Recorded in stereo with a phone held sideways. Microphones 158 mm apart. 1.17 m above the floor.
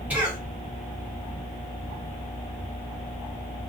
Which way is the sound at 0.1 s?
10° right (ahead or behind).